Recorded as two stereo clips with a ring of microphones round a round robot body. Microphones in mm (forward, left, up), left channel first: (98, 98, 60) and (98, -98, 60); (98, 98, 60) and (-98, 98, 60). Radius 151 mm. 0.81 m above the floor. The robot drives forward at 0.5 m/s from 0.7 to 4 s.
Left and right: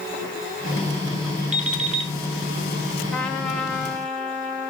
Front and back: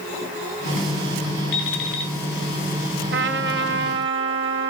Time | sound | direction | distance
1.5 | an alarm clock | 35° right | 2.5 m
3.1 | a trumpet | 175° left | 0.7 m